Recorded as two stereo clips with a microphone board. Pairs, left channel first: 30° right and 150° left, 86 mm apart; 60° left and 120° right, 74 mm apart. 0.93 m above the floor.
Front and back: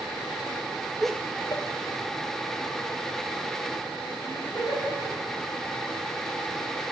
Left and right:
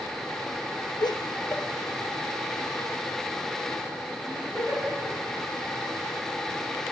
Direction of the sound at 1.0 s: 65° left.